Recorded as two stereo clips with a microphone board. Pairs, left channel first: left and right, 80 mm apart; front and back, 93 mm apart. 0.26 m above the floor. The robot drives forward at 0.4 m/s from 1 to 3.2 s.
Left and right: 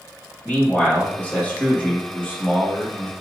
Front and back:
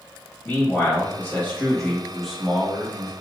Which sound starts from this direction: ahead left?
A man speaking, at 0.5 s.